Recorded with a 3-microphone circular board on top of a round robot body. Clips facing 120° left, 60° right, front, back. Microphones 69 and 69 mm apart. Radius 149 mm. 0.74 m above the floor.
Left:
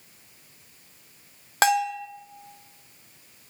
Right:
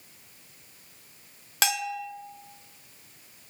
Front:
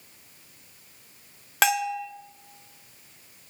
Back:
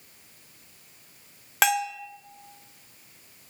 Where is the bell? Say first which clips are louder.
Left 8 dB, front 1 dB; 90° left, 1.4 m.